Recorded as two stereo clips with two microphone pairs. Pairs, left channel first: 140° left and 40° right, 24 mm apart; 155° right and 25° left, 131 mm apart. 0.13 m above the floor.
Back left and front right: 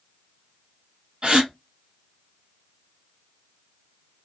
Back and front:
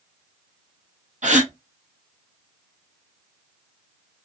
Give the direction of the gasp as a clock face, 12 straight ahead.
12 o'clock.